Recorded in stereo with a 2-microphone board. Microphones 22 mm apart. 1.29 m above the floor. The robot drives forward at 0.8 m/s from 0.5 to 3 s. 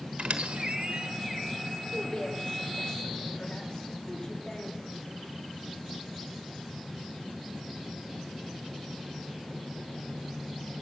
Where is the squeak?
65° right (ahead or behind), 1.1 m.